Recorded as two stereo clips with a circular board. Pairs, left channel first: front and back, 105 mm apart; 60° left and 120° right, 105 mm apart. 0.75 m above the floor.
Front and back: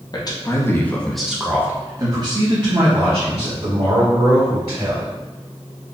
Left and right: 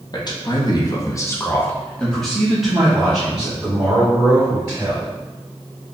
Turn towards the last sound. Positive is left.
turn(degrees=165)